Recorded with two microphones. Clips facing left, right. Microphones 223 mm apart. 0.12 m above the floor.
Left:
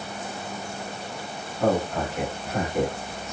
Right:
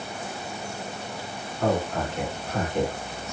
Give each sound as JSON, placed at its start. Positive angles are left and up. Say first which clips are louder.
{"t": 1.6, "sound": "a man speaking", "louder": "left 2 dB", "side_deg": 5, "distance_m": 1.6}